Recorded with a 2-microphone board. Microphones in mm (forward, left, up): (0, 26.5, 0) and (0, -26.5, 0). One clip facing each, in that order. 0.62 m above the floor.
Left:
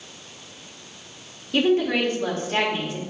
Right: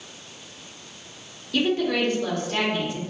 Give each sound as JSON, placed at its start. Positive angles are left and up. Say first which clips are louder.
{"t": 1.5, "sound": "a woman speaking", "louder": "left 3 dB", "side_deg": 20, "distance_m": 1.9}